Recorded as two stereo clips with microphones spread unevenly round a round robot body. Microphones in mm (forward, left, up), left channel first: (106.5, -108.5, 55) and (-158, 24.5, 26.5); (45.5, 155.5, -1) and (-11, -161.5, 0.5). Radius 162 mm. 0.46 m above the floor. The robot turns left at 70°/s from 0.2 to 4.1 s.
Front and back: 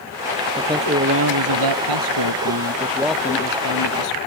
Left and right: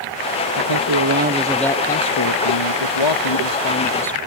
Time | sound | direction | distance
0.6 | a man speaking | 120° right | ?